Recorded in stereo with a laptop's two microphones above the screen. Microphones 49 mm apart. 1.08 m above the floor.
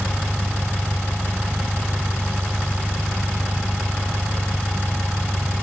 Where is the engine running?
35° right (ahead or behind).